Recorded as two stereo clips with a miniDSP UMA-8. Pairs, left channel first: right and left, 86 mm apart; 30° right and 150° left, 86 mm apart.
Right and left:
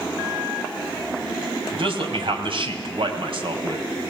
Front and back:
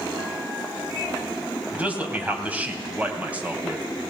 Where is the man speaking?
80° left, 2.5 m.